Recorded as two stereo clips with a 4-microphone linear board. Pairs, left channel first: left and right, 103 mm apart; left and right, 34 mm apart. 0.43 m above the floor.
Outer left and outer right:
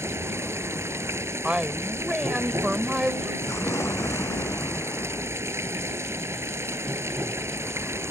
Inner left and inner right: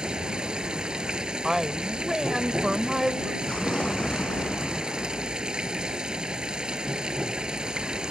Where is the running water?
25° right (ahead or behind).